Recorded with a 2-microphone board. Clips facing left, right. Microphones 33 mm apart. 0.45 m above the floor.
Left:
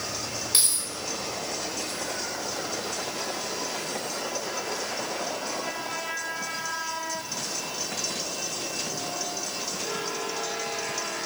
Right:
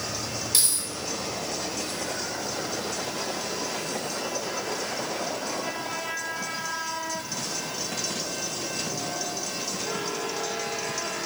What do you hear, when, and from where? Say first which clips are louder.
0.5 s keys jangling: left 1 dB; 30° left (ahead or behind), 1.3 m